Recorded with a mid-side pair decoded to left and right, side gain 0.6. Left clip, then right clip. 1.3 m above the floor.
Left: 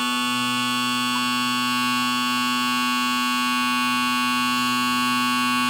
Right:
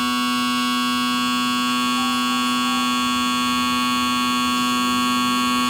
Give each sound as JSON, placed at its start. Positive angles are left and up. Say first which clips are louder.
{"t": 0.0, "sound": "a machine running", "louder": "right 2 dB", "azimuth_deg": 10, "distance_m": 3.0}